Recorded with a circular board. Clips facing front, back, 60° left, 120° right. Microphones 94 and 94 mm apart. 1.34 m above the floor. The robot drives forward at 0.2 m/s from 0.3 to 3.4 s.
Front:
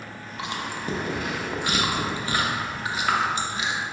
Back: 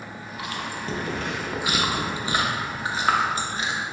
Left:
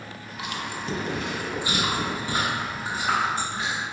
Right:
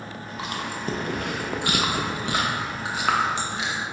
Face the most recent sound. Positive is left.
turn(degrees=-130)